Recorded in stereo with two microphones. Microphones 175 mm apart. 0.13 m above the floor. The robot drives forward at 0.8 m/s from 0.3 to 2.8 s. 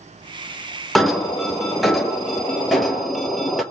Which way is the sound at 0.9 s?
Centre (ahead or behind).